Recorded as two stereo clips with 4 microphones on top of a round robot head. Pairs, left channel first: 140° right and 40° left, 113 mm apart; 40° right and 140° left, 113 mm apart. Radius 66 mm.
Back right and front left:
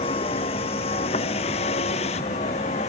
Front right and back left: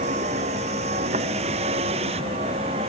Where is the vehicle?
175° left; by 2.9 s 175° right.